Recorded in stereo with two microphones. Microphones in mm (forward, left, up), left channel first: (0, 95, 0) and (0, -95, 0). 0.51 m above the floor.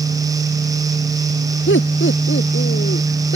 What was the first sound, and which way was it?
Laughter, 85° left.